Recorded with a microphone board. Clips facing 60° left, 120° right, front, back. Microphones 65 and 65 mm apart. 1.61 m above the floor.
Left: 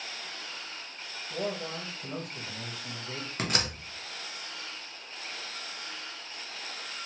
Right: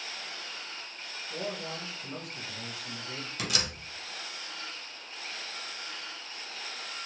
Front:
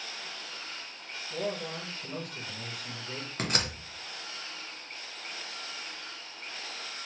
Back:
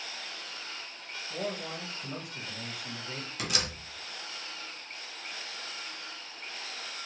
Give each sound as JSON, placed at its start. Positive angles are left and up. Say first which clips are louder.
{"t": 1.3, "sound": "a man speaking", "louder": "left 3 dB, front 2 dB", "azimuth_deg": 105, "distance_m": 1.1}
{"t": 3.4, "sound": "a door slam", "louder": "left 3 dB, front 3 dB", "azimuth_deg": 30, "distance_m": 0.7}